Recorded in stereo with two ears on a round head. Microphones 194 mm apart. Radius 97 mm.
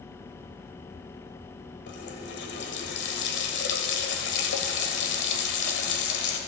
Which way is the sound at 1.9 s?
55° left (ahead or behind).